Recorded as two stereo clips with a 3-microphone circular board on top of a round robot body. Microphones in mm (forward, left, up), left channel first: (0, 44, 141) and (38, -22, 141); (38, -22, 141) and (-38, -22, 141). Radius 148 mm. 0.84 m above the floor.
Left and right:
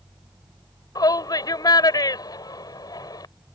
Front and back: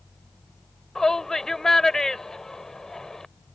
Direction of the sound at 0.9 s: 85° left.